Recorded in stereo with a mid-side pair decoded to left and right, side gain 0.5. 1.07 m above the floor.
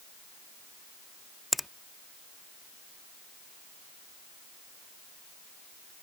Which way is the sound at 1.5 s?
10° left.